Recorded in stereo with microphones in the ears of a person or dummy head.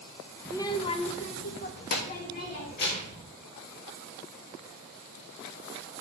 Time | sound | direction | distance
0.5 | a child speaking | 10° left (ahead or behind) | 0.5 m